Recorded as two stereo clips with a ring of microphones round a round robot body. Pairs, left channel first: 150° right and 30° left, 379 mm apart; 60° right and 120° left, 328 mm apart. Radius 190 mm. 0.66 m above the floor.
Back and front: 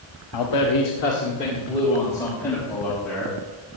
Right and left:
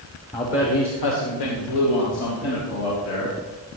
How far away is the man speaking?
About 1.4 m.